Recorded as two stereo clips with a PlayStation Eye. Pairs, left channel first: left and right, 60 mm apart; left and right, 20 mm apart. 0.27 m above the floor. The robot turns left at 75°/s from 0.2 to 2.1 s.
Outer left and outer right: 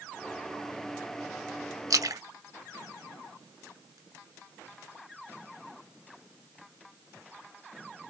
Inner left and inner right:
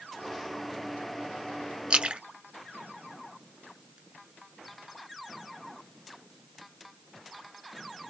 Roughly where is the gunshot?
No gunshot in this recording.